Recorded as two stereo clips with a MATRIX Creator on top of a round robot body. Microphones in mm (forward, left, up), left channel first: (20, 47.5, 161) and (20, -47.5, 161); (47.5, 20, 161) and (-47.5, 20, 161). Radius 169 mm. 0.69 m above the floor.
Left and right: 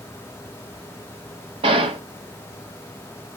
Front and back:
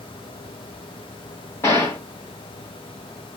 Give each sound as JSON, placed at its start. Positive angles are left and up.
{"t": 1.6, "sound": "a gunshot", "azimuth_deg": -65, "distance_m": 0.7}